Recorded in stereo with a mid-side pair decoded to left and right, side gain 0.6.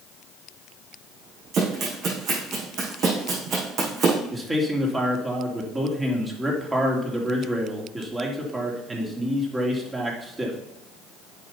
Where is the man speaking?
20° right, 3 m.